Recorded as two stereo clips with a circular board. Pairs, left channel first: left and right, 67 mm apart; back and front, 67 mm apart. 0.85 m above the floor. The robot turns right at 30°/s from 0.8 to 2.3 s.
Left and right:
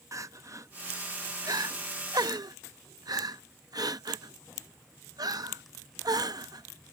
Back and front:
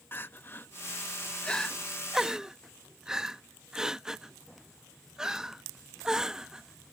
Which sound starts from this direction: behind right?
Crying, at 0.1 s.